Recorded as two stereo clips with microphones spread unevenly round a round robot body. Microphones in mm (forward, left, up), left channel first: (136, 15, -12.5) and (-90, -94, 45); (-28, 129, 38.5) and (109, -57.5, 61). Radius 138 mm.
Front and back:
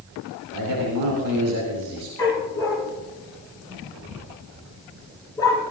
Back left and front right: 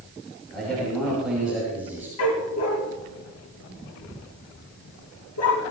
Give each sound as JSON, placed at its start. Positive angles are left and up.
{"t": 0.5, "sound": "a man speaking", "azimuth_deg": -145, "distance_m": 4.5}
{"t": 2.2, "sound": "a dog barking", "azimuth_deg": 105, "distance_m": 3.5}